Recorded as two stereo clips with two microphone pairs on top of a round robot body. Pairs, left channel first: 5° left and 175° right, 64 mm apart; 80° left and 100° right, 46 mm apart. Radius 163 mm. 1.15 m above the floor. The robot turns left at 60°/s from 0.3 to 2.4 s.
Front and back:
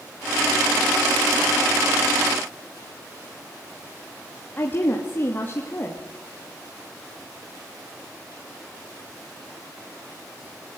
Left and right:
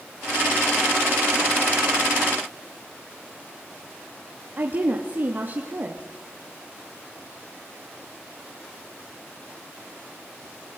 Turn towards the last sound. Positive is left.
turn(degrees=-55)